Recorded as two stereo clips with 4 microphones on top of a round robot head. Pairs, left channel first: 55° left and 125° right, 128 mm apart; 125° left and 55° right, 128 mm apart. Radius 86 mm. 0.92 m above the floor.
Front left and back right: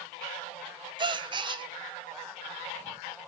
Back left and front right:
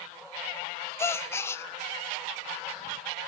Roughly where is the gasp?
Behind.